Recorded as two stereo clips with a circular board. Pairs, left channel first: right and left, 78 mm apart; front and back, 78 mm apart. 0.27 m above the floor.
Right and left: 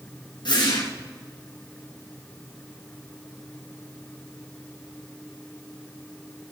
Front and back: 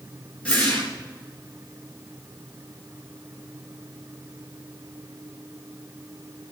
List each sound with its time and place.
0.5 s a whoosh: 75° right, 7 m